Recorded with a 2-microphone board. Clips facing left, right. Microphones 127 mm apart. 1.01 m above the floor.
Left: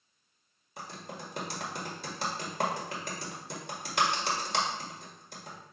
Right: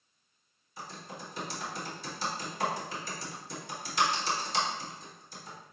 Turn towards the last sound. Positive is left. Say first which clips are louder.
# left 1 dB
turn(degrees=60)  # may be behind; listen again after turning